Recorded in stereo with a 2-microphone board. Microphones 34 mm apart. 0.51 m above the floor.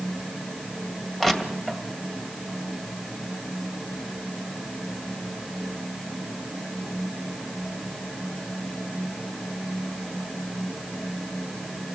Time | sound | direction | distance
1.2 | crushing | 10° left (ahead or behind) | 2 m